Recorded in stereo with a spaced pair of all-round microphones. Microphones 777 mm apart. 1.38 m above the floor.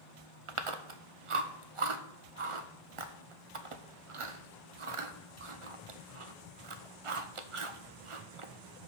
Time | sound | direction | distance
0.5 | chewing | 45° right (ahead or behind) | 0.7 m